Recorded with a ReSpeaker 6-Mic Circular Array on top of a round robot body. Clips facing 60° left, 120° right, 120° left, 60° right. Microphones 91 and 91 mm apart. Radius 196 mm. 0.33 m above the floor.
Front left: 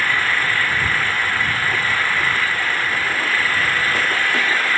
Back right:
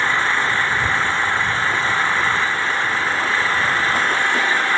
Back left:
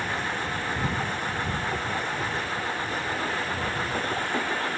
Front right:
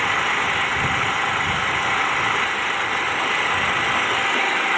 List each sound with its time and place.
0.0 s an engine running: 55° right